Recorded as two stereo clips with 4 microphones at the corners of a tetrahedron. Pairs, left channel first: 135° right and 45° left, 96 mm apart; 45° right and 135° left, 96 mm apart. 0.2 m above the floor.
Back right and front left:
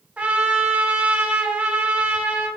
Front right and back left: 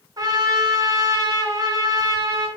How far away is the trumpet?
About 1.1 m.